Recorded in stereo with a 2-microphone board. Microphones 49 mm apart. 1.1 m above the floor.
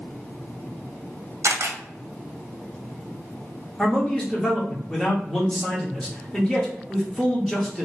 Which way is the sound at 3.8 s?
10° left (ahead or behind).